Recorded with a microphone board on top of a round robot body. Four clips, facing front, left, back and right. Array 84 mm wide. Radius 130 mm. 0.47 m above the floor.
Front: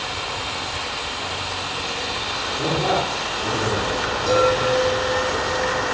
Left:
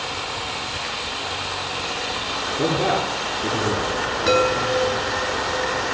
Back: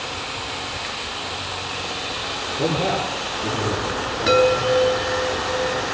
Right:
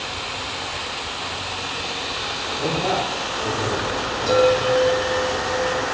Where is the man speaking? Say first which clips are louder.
Left 2 dB, even; 115° left, 10 m.